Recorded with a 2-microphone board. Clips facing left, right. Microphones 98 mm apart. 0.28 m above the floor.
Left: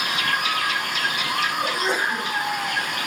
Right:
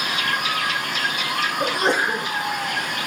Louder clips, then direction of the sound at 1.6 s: Right 3 dB; 50° right (ahead or behind).